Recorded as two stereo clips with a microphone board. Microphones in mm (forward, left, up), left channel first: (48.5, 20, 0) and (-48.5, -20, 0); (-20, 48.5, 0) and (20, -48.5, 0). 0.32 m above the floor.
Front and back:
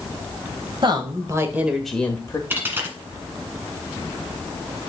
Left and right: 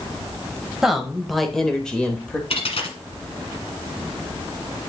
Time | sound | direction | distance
0.8 | a woman speaking | 150° right | 1.2 m
2.5 | a dropped coin | 135° left | 1.4 m